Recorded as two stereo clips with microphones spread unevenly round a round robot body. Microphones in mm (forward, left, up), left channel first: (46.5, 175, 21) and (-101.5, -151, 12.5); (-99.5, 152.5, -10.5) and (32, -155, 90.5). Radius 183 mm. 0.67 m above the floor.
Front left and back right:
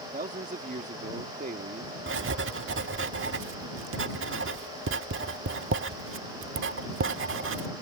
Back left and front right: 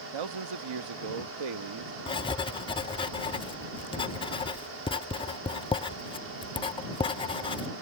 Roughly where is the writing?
Behind.